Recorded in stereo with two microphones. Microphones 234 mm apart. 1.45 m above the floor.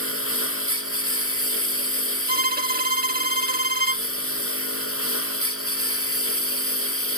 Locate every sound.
0.0 s a lawn mower: 65° left (ahead or behind); by 7.2 s 70° left (ahead or behind)
2.3 s a violin: 40° right (ahead or behind)